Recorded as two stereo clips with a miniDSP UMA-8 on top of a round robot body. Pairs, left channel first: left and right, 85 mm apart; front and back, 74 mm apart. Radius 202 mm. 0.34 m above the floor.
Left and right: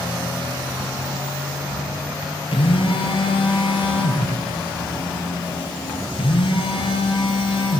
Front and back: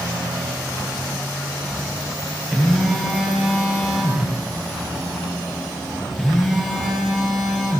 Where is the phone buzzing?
95° left, 7 m.